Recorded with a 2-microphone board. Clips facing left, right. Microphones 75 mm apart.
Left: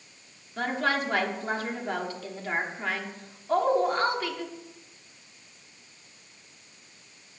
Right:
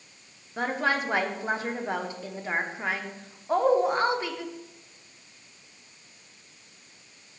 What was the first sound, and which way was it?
A woman speaking, 20° right (ahead or behind).